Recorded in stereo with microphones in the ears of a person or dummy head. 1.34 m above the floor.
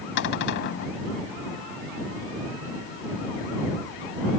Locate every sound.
0.2 s a cupboard door: 65° left (ahead or behind)